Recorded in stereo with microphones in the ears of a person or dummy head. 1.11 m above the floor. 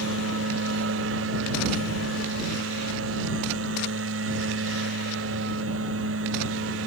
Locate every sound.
0.0 s a machine running: 90° right